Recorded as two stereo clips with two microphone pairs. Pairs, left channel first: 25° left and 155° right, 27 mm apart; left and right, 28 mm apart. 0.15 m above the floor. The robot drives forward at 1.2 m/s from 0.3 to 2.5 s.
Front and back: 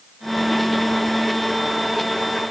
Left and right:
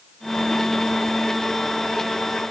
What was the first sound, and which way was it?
Only background noise.